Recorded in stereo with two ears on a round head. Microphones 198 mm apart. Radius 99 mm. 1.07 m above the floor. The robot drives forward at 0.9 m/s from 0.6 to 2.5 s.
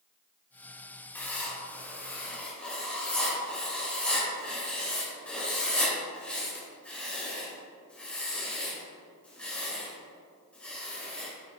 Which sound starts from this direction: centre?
Writing, at 1.1 s.